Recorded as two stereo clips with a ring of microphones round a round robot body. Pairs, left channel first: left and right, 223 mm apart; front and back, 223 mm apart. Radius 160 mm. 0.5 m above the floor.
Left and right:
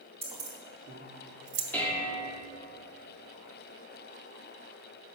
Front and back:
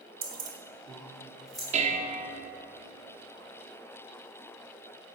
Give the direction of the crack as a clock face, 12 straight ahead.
No crack in this recording.